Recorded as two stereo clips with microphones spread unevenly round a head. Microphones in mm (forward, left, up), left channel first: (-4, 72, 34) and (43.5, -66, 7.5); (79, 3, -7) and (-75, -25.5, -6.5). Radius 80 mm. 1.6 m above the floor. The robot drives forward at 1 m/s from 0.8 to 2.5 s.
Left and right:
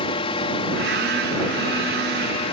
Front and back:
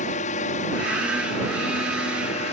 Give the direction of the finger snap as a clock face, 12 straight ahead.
I don't hear a finger snap.